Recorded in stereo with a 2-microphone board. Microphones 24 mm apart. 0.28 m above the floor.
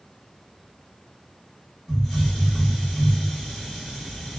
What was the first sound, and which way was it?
A hiss, 10° left (ahead or behind).